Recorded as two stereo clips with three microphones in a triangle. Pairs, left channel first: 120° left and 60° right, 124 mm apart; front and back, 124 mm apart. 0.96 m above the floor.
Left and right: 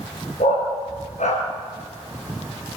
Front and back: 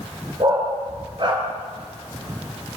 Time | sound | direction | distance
0.4 | a dog barking | 135° left | 5 m